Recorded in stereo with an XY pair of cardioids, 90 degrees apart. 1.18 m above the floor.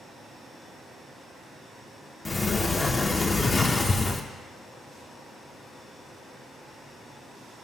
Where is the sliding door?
30° left, 0.6 m.